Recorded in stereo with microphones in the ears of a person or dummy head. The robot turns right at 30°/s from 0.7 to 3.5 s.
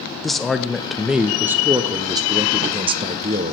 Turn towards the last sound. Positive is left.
turn(degrees=-25)  # may be behind; listen again after turning